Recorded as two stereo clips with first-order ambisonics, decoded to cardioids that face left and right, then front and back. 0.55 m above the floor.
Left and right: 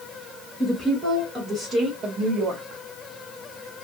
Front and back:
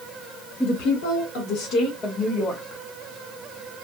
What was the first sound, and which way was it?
A woman speaking, 10° right.